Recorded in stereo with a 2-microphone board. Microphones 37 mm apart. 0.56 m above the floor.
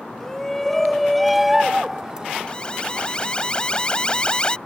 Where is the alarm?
25° left (ahead or behind).